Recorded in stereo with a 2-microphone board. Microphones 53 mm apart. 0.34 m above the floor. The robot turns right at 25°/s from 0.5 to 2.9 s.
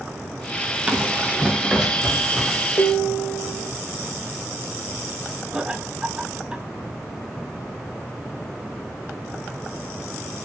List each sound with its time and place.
0.9 s running footsteps: 30° right (ahead or behind), 5 m; by 2.7 s 5° left (ahead or behind), 8 m
2.8 s dishes clattering: 55° left (ahead or behind), 3.5 m
5.5 s laughter: 15° right (ahead or behind), 2 m